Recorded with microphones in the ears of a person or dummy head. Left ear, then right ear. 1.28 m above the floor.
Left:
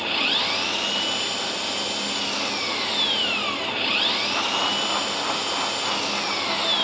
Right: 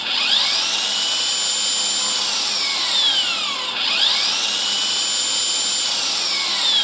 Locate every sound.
0.0 s an engine running: 30° right (ahead or behind), 1.2 m